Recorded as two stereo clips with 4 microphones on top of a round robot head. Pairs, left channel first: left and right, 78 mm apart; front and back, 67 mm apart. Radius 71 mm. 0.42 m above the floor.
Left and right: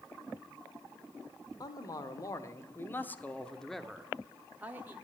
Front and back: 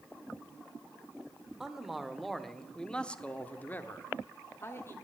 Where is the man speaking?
100° left, 1.5 m; by 5.0 s 35° right, 1.4 m.